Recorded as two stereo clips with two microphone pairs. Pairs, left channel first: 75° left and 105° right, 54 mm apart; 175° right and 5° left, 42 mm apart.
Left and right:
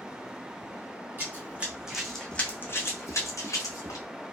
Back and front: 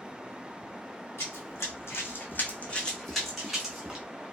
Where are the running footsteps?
160° right, 1.2 m; by 4.0 s 85° left, 1.6 m.